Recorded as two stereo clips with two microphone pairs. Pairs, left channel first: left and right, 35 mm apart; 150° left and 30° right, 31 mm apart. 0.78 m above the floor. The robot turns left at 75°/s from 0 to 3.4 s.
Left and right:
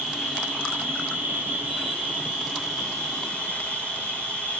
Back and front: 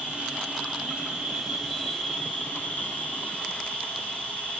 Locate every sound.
0.0 s an insect: 10° left, 3.5 m; by 4.6 s 115° left, 3.5 m